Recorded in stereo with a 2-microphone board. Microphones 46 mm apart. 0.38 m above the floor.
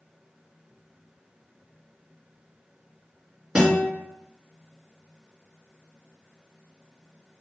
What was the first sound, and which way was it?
A guitar, 20° right (ahead or behind).